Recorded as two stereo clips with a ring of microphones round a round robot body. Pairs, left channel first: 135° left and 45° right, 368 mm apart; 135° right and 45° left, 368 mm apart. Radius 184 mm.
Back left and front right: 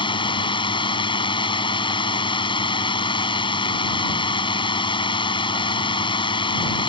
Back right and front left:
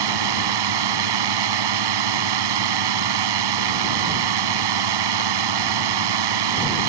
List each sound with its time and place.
0.0 s a drone: 60° left